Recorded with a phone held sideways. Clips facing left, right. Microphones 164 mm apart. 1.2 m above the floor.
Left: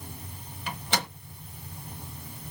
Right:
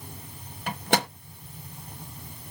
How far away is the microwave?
About 0.8 m.